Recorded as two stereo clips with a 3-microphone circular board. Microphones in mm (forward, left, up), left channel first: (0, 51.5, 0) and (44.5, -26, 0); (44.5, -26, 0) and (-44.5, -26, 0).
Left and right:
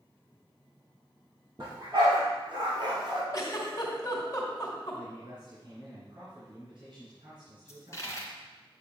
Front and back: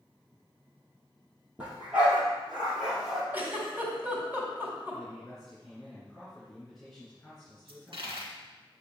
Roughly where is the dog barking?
Right.